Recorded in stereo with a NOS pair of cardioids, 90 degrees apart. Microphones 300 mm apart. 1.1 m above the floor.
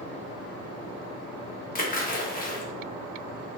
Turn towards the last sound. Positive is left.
turn(degrees=30)